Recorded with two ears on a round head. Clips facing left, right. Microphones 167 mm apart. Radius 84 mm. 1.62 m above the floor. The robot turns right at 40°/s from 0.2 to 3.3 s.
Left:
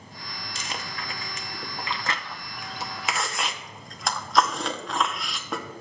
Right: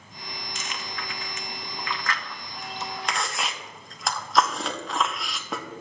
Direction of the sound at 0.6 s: 30° left (ahead or behind).